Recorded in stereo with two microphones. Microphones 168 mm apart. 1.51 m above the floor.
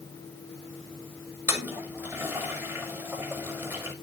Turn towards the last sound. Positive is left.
turn(degrees=-15)  # may be behind; listen again after turning